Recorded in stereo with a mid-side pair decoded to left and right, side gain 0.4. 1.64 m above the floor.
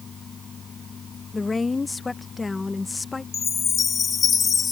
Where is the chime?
50° left.